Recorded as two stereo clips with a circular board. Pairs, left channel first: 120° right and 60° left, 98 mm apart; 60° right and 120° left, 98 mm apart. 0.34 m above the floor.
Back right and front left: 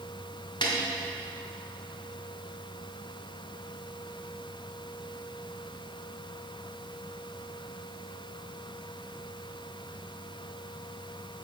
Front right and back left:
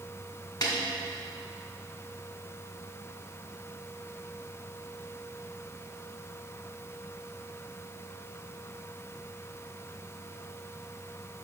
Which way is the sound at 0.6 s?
95° right.